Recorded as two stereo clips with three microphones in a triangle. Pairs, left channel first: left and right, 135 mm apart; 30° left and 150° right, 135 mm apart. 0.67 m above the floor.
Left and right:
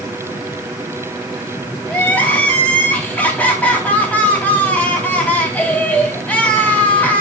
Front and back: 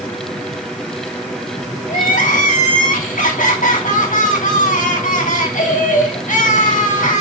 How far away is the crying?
About 3 m.